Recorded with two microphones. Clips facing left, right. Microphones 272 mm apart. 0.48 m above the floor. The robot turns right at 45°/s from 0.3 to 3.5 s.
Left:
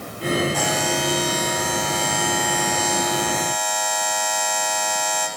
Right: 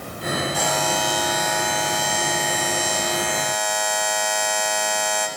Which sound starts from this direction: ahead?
A buzzer, at 0.5 s.